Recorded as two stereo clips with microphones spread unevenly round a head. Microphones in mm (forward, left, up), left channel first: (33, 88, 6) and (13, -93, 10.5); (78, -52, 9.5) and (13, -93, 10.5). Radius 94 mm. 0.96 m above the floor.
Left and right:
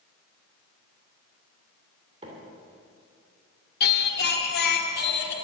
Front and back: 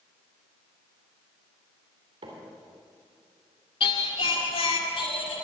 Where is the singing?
50° left, 1.8 m.